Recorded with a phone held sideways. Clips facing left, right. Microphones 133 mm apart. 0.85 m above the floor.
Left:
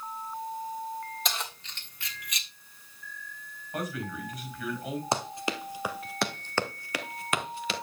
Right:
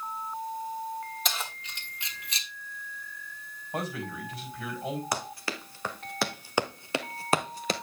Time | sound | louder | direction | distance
1.2 | keys jangling | even | centre (ahead or behind) | 1.6 m
3.7 | a man speaking | even | 30° right (ahead or behind) | 5 m
5.1 | running footsteps | left 3 dB | 25° left (ahead or behind) | 1.2 m